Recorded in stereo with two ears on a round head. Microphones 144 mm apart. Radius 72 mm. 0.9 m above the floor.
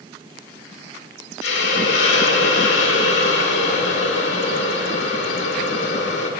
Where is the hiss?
85° left, 2 m.